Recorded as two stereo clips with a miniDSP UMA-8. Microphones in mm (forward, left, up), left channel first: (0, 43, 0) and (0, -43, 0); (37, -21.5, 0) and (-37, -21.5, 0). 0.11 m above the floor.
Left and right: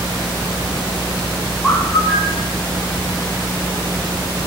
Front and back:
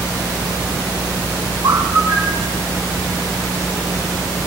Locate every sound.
1.6 s a bird: straight behind, 3 m